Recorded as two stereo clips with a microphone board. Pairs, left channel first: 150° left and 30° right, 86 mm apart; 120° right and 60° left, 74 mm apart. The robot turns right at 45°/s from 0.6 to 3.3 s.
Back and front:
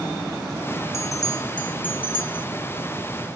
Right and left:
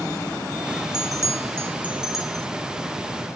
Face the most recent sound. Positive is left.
turn(degrees=-160)